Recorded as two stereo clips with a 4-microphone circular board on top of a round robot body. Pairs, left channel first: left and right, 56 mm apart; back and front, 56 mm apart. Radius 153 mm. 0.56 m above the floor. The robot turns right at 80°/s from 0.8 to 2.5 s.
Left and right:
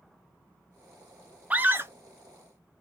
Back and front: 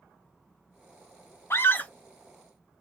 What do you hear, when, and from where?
1.5 s a scream: 150° right, 1.1 m; by 1.9 s 115° right, 1.1 m